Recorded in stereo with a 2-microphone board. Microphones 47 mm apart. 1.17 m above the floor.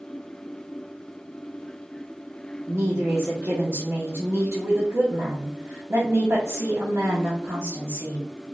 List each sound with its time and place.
2.7 s a woman speaking: 65° right (ahead or behind), 0.9 m